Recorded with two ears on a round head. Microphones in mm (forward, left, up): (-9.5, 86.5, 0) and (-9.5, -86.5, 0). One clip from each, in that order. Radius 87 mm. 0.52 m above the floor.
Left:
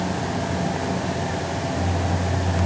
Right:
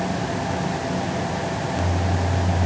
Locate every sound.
Only background noise.